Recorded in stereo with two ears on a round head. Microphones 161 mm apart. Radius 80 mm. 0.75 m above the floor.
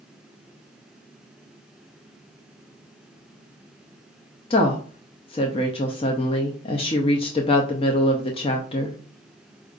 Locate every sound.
4.5 s a woman speaking: 30° left (ahead or behind), 0.6 m